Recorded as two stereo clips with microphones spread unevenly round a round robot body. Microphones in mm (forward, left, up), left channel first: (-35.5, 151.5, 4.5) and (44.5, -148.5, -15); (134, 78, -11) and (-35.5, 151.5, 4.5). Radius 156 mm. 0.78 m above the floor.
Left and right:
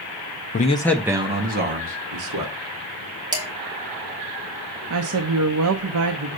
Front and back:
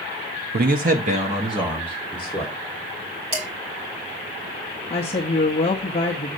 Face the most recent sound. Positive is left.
turn(degrees=-70)